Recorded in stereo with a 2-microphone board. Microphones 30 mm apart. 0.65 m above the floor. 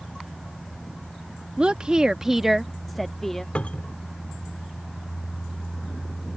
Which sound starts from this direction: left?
A cupboard door, at 3.5 s.